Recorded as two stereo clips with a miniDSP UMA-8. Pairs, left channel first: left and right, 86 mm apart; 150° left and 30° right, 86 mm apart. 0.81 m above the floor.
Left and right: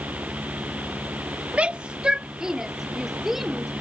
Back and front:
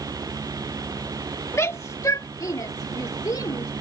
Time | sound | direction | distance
1.5 | a shout | 160° right | ?